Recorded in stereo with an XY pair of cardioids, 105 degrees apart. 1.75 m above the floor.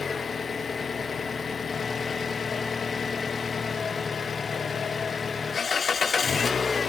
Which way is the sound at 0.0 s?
40° left.